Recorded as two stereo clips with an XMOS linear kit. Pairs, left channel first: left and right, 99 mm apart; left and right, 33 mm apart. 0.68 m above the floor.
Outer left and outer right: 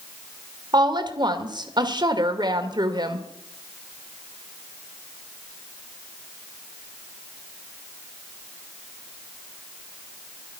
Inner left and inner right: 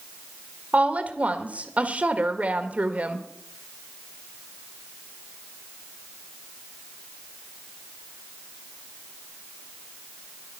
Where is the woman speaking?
45° right (ahead or behind), 2.0 m.